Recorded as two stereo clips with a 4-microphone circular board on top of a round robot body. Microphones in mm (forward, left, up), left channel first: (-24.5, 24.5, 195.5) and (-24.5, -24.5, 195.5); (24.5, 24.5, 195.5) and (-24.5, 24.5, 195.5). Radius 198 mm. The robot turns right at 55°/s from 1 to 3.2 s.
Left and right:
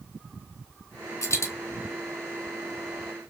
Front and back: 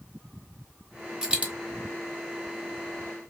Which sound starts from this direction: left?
A dropped coin, at 1.2 s.